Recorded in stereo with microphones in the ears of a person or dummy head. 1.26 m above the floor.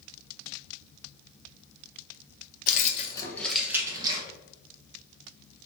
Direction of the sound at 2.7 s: 50° left (ahead or behind).